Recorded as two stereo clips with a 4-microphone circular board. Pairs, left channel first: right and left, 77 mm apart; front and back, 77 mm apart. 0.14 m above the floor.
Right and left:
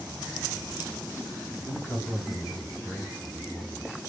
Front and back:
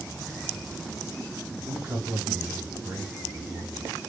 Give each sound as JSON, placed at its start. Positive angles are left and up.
{"t": 1.6, "sound": "a man speaking", "azimuth_deg": -175, "distance_m": 2.0}